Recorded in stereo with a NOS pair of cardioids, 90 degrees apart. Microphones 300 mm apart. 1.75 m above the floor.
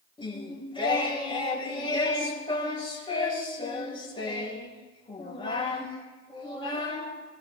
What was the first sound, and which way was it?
Singing, 15° left.